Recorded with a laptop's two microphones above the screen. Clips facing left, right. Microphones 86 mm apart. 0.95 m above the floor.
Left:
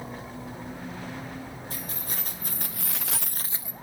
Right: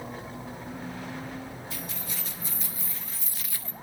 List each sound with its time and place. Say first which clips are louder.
1.7 s keys jangling: left 1 dB; 45° left (ahead or behind), 2.5 m; by 3.7 s 10° left (ahead or behind), 0.8 m